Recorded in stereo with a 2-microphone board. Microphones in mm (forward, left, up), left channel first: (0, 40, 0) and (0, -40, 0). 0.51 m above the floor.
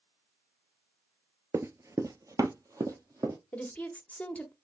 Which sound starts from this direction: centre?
A woman speaking, at 3.5 s.